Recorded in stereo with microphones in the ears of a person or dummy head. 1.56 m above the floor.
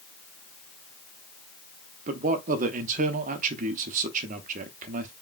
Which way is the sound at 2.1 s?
45° right (ahead or behind).